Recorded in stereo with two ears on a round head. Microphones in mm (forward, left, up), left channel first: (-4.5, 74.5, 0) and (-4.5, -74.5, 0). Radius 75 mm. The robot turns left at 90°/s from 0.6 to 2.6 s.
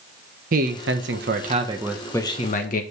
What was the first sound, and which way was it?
A man speaking, 55° right.